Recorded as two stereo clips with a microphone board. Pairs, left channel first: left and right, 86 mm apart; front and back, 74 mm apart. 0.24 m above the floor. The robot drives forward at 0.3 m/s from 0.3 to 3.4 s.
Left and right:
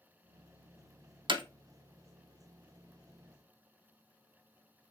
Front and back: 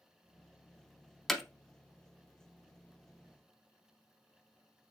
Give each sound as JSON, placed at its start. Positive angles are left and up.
{"t": 1.3, "sound": "hammering", "azimuth_deg": -85, "distance_m": 0.5}